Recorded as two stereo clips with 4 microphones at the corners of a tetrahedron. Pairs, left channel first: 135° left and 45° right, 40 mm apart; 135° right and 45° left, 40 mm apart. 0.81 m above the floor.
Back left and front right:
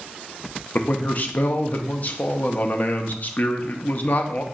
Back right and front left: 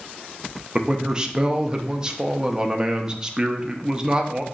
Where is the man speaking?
110° left, 0.5 m.